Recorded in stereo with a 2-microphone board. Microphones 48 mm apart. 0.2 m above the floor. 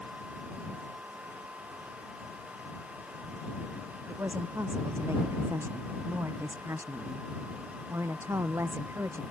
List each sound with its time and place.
4.1 s a woman speaking: 60° right (ahead or behind)